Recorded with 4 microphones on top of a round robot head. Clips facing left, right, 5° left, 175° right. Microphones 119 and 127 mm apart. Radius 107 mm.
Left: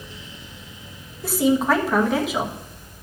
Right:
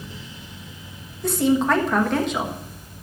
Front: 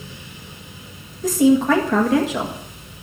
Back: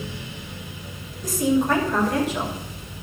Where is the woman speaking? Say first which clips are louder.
Even, front 6 dB; 5° left, 1.4 m.